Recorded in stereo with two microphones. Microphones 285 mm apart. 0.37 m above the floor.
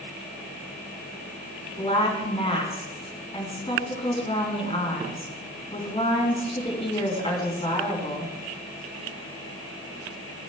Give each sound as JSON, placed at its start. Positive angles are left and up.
{"t": 1.8, "sound": "a woman speaking", "side_deg": 20, "distance_m": 4.5}